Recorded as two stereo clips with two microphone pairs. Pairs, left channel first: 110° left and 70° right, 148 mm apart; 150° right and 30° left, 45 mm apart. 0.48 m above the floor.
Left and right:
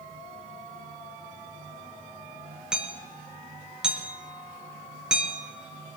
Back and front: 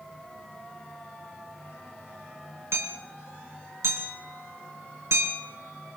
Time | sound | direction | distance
2.7 | hammering | 15° left | 4.5 m